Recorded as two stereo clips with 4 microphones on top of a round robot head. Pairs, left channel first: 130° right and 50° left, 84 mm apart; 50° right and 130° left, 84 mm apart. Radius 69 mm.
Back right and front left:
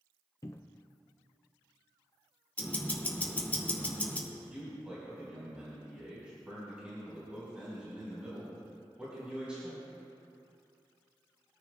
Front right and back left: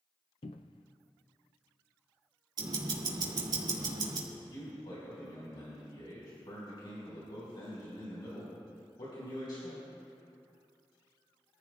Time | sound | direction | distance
0.4 | a cupboard door | 75° right | 0.5 m
2.6 | ticking | 160° left | 2.5 m
4.3 | a man speaking | 25° right | 4.5 m